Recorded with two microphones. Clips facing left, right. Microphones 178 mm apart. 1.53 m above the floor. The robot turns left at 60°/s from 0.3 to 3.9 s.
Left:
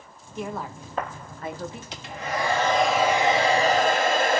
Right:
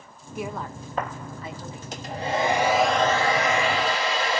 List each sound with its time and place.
0.3 s a woman speaking: 10° right (ahead or behind), 1.8 m; by 1.8 s 75° left (ahead or behind), 1.8 m
1.9 s a hair dryer: 125° right, 1.4 m; by 4.4 s 115° left, 1.4 m